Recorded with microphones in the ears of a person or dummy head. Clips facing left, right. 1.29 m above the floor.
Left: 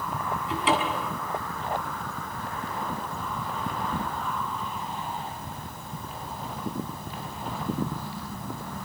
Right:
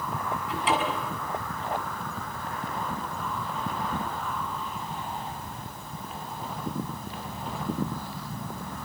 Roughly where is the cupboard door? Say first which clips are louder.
Left 1 dB; left.